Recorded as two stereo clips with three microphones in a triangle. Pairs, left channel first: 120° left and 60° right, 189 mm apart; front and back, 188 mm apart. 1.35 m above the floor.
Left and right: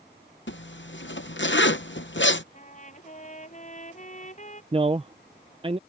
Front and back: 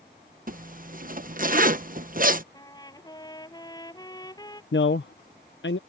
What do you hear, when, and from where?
0.5 s a zipper: 135° left
2.5 s a trumpet: 70° left
4.7 s a man speaking: straight ahead